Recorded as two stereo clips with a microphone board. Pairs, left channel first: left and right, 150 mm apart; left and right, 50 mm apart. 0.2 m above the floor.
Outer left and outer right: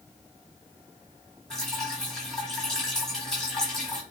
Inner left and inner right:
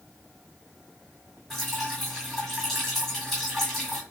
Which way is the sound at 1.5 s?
5° left (ahead or behind).